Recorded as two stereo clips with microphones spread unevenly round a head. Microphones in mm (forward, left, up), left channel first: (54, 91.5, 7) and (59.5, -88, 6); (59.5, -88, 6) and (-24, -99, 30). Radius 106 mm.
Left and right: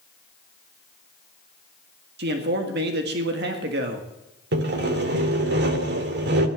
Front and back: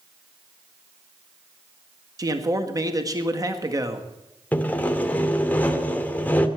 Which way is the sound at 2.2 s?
120° right.